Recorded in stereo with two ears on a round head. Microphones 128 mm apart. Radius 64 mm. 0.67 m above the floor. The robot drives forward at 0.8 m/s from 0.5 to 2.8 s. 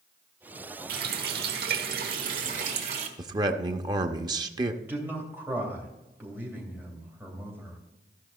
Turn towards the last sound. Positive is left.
turn(degrees=-15)  # may be behind; listen again after turning